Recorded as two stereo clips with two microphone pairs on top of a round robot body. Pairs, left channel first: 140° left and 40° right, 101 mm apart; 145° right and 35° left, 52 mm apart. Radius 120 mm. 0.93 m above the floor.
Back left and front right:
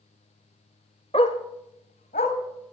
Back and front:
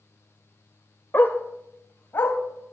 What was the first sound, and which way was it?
A dog barking, 135° left.